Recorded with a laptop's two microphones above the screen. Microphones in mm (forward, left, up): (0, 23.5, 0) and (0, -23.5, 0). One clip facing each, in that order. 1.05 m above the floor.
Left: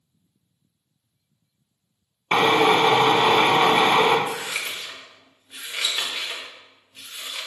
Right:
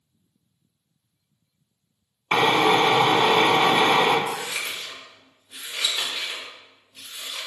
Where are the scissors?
40° left (ahead or behind), 1.2 m.